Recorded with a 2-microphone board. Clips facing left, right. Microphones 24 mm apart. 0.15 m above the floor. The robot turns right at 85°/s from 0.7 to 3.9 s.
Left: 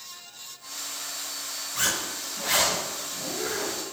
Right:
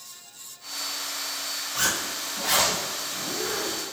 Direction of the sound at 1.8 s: 35° right (ahead or behind).